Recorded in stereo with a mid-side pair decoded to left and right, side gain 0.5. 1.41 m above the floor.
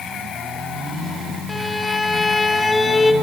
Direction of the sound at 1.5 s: 15° left.